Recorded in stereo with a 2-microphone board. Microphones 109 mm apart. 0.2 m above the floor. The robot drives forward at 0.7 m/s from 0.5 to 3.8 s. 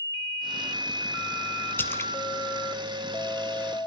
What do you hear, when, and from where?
1.8 s a splash: 20° left (ahead or behind), 1.0 m; by 2.1 s 25° left (ahead or behind), 0.8 m